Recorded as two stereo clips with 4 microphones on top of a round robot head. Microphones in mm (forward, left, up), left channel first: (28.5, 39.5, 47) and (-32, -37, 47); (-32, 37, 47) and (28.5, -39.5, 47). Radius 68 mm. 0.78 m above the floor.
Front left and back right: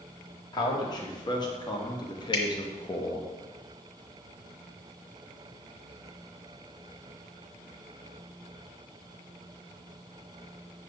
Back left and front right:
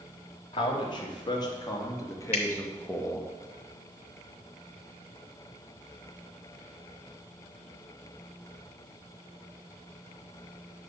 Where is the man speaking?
95° left, 2.0 m; by 3.3 s 50° left, 1.1 m.